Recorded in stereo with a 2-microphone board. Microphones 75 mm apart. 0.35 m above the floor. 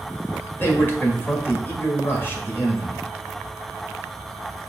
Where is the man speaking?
30° left (ahead or behind), 1.5 m.